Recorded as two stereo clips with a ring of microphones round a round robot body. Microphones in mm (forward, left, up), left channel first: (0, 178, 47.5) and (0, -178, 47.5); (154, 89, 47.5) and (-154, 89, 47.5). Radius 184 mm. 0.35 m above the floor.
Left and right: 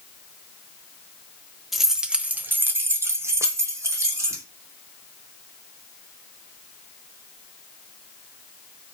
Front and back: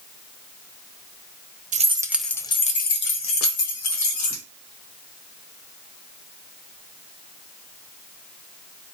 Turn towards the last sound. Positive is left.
turn(degrees=-10)